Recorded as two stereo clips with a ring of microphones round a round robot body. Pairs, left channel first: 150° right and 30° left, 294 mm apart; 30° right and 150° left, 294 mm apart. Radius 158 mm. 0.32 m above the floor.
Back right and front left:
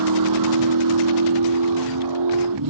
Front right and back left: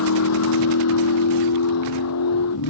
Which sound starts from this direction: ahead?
A vehicle, at 0.0 s.